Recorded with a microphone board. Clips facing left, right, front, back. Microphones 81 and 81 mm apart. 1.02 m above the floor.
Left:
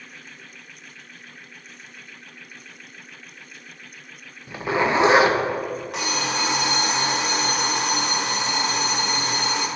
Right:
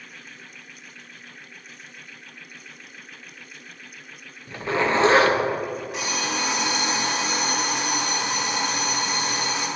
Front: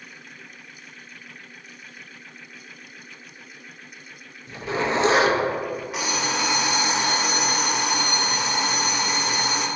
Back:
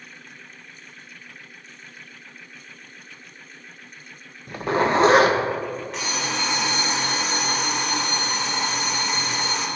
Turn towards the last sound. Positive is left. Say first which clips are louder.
# left 3 dB, front 4 dB
turn(degrees=80)